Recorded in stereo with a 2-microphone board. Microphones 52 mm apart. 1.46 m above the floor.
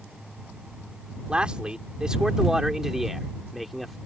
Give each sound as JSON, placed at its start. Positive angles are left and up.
{"t": 1.3, "sound": "a man speaking", "side_deg": -20}